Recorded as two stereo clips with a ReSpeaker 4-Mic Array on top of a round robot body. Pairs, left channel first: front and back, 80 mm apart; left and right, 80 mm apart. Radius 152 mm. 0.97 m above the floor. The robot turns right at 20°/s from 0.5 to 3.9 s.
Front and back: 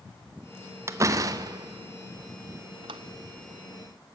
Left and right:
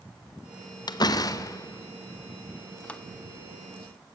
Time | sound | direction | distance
0.9 | a door slam | 125° left | 0.9 m